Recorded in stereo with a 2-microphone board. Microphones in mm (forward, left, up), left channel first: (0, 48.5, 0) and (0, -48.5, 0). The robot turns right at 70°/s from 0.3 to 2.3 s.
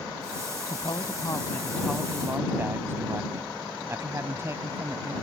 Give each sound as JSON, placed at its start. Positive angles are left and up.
{"t": 0.7, "sound": "a woman speaking", "azimuth_deg": 100}